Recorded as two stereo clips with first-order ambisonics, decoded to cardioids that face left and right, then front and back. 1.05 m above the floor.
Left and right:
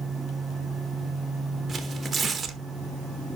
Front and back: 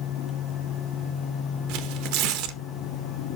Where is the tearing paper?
170° right, 0.9 m.